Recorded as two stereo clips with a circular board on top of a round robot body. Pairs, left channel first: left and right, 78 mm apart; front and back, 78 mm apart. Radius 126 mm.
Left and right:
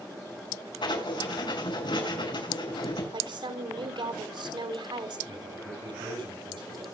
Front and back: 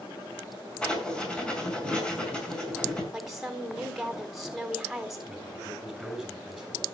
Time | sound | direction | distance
0.8 | writing | 80° left | 6 m
3.1 | a woman speaking | 95° right | 4 m
5.3 | a man speaking | 95° right | 5.5 m